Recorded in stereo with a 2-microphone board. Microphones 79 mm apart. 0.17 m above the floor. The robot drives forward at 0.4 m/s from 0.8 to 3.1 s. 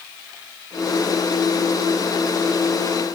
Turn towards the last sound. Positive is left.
No sound to turn to.